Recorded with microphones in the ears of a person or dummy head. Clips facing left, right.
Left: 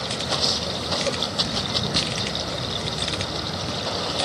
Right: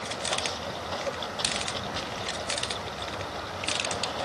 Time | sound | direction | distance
0.0 | running water | 65° left (ahead or behind) | ?